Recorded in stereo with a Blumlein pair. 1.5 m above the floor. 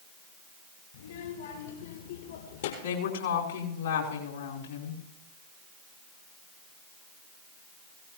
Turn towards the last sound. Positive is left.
turn(degrees=65)